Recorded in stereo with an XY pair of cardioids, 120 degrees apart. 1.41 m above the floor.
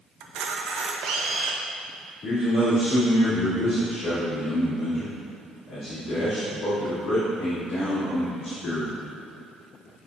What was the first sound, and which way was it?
A camera shutter, 65° right.